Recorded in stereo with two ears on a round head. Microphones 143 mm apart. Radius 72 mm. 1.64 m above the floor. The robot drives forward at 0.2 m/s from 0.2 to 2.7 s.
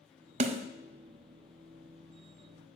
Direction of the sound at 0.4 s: 40° right (ahead or behind).